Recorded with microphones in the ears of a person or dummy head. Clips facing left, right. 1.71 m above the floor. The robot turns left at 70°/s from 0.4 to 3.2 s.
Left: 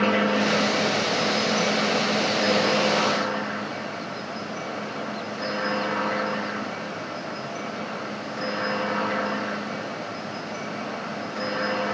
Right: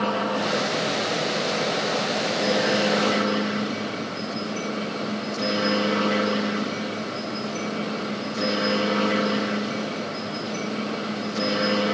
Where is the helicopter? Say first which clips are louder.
Left 3 dB; 150° left; by 11.9 s 45° right.